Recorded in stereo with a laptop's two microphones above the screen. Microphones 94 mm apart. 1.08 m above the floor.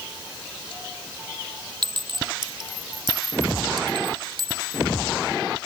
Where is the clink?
60° right (ahead or behind).